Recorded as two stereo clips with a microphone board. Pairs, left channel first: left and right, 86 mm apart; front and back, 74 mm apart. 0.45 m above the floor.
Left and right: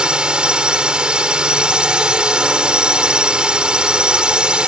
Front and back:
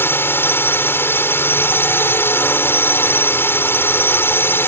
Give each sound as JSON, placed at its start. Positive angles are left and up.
{"t": 0.0, "sound": "a drone", "azimuth_deg": -20}